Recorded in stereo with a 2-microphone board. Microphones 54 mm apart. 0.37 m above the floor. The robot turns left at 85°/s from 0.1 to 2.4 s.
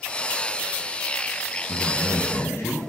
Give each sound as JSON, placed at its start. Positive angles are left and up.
{"t": 1.7, "sound": "a man speaking", "azimuth_deg": 125, "distance_m": 3.0}